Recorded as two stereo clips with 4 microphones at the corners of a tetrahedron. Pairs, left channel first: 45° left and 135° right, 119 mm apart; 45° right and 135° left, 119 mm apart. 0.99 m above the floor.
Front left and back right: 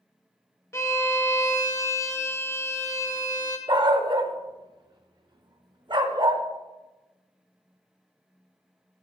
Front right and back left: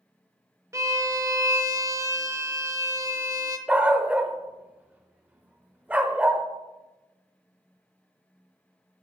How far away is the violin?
About 0.8 m.